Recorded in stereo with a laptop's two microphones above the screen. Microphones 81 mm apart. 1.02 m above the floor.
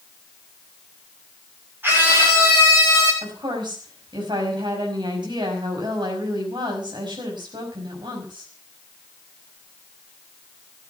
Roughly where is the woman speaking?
Right.